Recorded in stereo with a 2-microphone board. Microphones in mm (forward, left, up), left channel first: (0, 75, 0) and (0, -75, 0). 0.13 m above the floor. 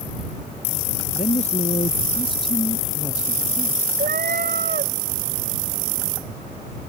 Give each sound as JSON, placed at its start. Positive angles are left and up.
{"t": 1.1, "sound": "a woman speaking", "side_deg": 50}
{"t": 4.0, "sound": "a cat meowing", "side_deg": -70}